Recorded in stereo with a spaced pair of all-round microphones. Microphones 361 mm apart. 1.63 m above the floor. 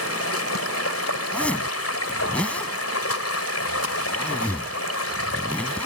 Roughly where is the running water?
Left.